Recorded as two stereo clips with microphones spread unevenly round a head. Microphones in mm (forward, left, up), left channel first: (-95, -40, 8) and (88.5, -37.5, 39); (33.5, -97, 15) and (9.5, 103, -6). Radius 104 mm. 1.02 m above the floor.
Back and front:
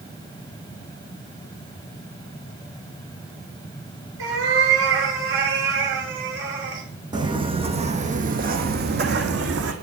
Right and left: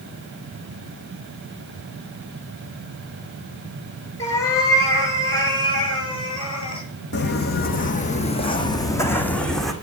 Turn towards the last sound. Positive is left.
turn(degrees=5)